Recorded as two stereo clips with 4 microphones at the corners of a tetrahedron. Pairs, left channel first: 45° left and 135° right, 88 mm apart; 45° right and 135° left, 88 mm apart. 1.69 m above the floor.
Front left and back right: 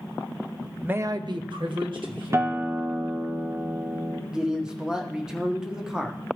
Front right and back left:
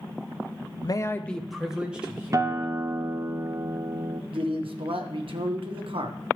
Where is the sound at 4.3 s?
145° left, 1.2 m.